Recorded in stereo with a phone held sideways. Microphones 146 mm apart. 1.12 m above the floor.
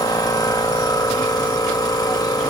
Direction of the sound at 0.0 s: 25° left (ahead or behind).